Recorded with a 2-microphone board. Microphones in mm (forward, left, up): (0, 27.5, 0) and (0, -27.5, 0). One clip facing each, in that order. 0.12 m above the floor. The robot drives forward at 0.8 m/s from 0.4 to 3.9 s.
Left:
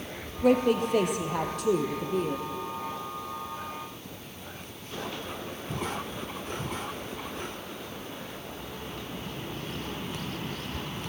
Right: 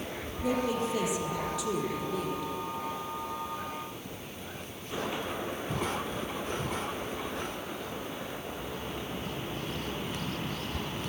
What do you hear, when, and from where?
0.4 s a woman speaking: 60° left (ahead or behind), 2.5 m; by 2.5 s 40° left (ahead or behind), 3.5 m